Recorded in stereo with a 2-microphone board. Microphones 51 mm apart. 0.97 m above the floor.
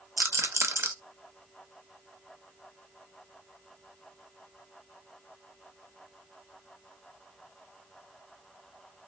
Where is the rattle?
60° right (ahead or behind), 0.5 m.